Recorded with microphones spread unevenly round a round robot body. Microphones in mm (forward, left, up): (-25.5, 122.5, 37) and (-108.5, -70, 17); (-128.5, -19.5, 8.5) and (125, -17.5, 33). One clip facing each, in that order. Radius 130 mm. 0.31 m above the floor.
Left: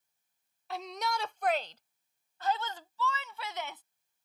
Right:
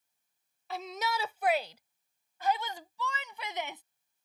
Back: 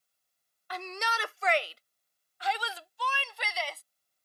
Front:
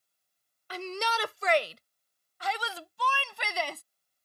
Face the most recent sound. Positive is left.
turn(degrees=-40)